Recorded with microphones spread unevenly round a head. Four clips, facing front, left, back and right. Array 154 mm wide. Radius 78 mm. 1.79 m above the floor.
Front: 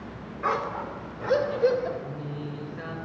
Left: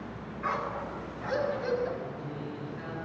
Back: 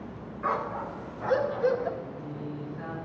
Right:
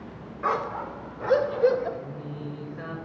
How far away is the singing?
About 7 m.